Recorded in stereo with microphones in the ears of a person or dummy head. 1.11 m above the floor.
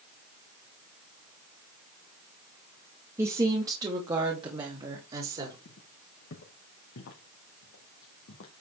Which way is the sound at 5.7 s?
55° left (ahead or behind).